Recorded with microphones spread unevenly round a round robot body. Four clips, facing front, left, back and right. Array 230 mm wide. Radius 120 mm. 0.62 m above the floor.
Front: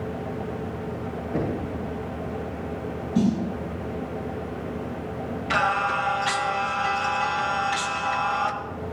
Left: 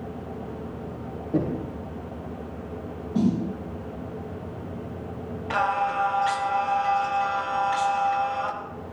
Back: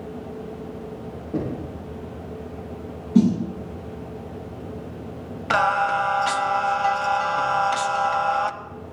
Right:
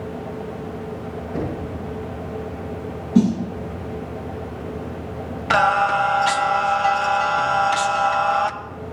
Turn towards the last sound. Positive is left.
turn(degrees=-130)